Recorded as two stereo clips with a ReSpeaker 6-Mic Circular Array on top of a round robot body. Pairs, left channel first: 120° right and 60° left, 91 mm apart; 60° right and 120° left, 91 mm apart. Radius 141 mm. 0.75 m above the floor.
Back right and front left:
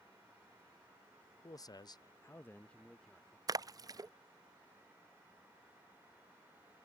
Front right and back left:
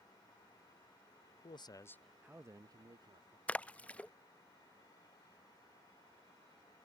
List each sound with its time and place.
1.4 s a man speaking: 75° right; by 3.4 s 150° left
3.5 s a splash: 15° left